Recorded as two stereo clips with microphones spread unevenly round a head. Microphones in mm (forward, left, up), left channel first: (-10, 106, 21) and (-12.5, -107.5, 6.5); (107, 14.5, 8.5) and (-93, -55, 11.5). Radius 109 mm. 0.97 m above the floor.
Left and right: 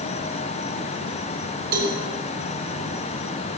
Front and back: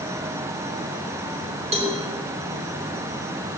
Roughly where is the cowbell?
Right.